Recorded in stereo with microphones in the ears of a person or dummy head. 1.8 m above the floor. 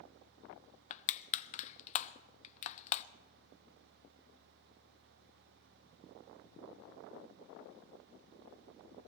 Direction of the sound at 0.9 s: 40° left (ahead or behind).